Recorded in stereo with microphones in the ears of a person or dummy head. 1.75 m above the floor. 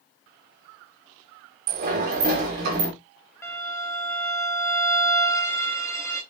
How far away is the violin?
About 0.7 m.